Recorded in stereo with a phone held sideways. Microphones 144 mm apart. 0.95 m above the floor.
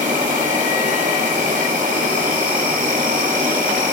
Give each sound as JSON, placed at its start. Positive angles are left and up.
{"t": 0.0, "sound": "an insect", "side_deg": -60, "distance_m": 1.3}